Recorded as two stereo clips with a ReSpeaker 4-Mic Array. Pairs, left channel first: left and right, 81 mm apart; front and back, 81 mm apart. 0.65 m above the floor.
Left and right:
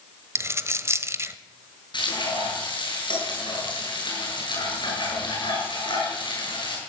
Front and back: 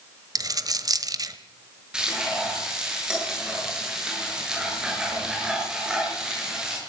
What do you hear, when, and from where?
0.3 s a dropped coin: 145° right, 1.2 m
1.9 s frying: 100° left, 8.5 m